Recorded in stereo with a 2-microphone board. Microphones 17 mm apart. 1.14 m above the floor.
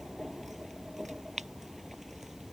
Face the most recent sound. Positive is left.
No sound to turn to.